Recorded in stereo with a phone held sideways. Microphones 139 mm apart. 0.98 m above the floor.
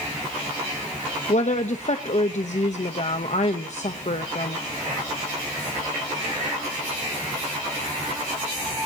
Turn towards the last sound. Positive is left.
turn(degrees=55)  # may be behind; listen again after turning